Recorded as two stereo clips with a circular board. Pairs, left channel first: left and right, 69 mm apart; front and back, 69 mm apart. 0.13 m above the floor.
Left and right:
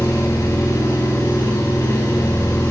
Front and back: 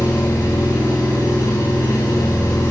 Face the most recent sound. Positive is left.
turn(degrees=45)